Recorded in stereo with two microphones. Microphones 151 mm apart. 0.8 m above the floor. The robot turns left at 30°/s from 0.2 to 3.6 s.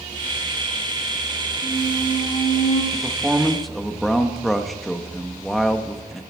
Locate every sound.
1.6 s a squeak: 150° left, 6 m; by 2.8 s 110° left, 6 m
2.9 s a man speaking: 10° right (ahead or behind), 1.2 m; by 6.2 s centre (ahead or behind), 1.2 m